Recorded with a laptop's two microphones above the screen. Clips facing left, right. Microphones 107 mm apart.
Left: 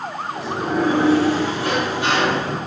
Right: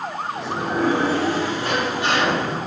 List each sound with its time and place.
0.3 s a sliding door: 60° left (ahead or behind), 2 m